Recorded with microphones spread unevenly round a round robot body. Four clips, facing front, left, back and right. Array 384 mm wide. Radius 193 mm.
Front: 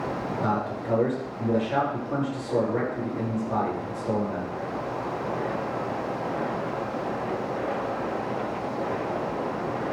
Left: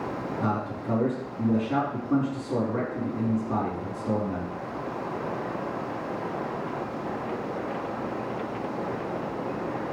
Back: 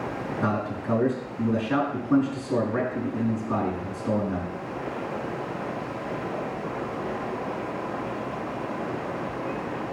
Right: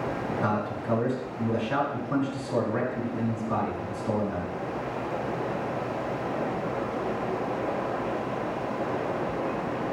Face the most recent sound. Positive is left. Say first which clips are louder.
# even, back 1 dB
turn(degrees=165)